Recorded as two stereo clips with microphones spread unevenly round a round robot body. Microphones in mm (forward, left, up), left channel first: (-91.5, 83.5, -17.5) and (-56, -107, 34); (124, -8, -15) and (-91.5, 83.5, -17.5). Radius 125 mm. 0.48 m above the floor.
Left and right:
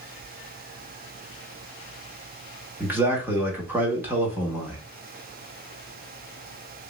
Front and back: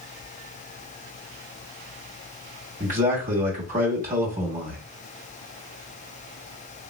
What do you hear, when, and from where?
2.8 s a man speaking: 175° right, 1.0 m